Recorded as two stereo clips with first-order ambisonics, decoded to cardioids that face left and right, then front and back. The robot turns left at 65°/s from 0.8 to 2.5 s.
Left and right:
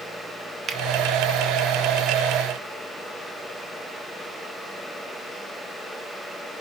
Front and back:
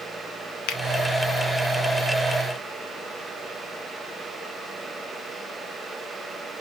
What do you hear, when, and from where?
0.7 s a finger snap: 20° right, 0.6 m; by 0.8 s 25° right, 0.6 m